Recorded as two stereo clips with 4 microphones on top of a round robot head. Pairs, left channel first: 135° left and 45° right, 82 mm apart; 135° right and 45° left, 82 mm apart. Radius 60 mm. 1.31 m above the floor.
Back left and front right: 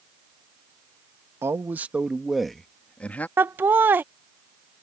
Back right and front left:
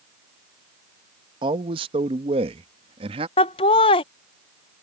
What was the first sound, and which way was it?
A man speaking, 15° left.